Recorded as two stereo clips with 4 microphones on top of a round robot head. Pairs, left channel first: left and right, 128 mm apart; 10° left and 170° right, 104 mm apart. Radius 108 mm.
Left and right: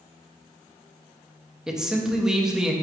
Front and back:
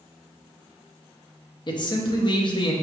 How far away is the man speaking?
About 0.8 m.